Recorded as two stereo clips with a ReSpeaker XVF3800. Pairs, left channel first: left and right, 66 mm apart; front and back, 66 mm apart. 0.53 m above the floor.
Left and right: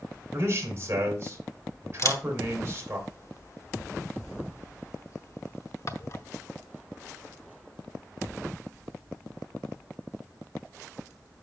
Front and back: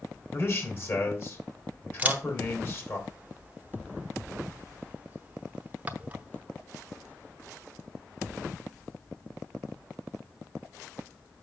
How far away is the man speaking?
About 2.5 m.